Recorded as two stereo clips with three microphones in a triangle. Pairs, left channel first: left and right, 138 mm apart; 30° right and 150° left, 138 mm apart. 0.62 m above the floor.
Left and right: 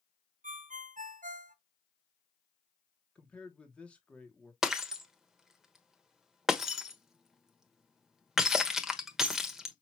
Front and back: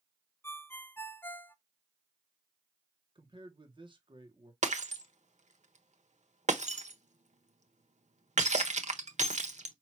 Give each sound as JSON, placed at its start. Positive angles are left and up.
{"t": 0.4, "sound": "a ringtone", "azimuth_deg": -105, "distance_m": 0.6}
{"t": 3.1, "sound": "a man speaking", "azimuth_deg": 165, "distance_m": 1.4}
{"t": 4.6, "sound": "breaking glass", "azimuth_deg": -175, "distance_m": 1.1}